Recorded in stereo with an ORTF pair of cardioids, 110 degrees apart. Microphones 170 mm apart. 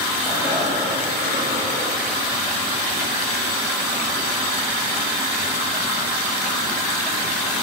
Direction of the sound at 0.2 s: 30° left.